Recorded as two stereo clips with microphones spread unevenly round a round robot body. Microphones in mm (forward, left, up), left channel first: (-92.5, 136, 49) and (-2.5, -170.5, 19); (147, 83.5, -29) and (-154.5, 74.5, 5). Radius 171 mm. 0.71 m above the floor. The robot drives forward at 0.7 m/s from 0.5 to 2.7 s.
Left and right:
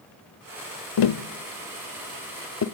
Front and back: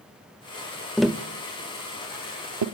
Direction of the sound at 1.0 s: 85° left.